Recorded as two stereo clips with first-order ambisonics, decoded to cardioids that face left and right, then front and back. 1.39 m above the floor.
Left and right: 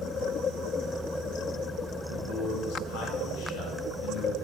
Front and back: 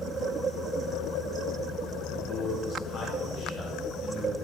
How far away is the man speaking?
About 3 m.